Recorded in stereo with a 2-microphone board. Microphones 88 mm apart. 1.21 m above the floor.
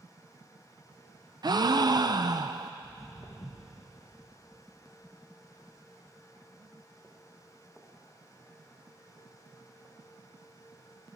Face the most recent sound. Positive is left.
turn(degrees=-20)  # may be behind; listen again after turning